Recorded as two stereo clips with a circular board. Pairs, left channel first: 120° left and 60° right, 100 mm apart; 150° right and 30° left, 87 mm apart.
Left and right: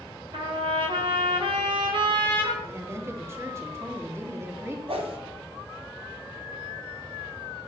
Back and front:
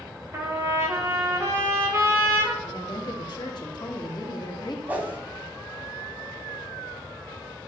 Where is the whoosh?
40° right, 2 m.